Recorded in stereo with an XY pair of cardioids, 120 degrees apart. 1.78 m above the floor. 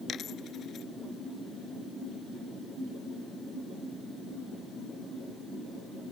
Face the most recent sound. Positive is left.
turn(degrees=50)